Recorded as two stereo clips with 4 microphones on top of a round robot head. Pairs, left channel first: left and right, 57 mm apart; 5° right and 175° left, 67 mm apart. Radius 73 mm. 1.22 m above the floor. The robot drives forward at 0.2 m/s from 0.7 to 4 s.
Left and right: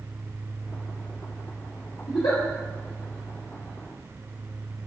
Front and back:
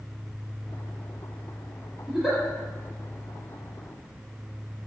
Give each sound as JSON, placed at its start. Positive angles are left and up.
{"t": 2.1, "sound": "a giggle", "azimuth_deg": 85, "distance_m": 1.0}